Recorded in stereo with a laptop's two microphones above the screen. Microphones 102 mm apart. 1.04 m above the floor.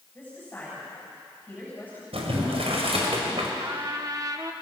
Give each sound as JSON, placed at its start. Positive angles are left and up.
{"t": 0.1, "sound": "a woman speaking", "side_deg": 20, "distance_m": 7.5}
{"t": 2.1, "sound": "boiling", "side_deg": -80, "distance_m": 3.0}
{"t": 3.6, "sound": "a trumpet", "side_deg": -40, "distance_m": 1.3}